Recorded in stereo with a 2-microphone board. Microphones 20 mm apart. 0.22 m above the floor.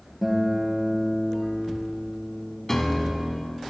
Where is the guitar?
Centre (ahead or behind), 1.4 m.